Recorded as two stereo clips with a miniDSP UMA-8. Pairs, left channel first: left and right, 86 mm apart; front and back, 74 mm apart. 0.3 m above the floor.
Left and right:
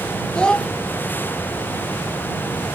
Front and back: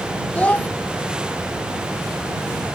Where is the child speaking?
25° left.